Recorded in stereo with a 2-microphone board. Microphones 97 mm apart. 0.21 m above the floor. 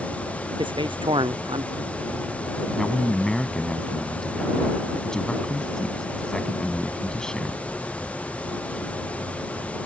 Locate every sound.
0.6 s a man speaking: 55° right (ahead or behind)
2.7 s a man speaking: 5° left (ahead or behind)